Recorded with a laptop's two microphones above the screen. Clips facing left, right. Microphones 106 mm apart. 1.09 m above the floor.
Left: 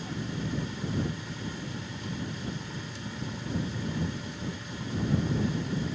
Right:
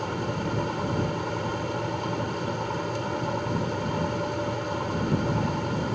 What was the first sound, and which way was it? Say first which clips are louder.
A fan: right 6 dB; 70° right (ahead or behind).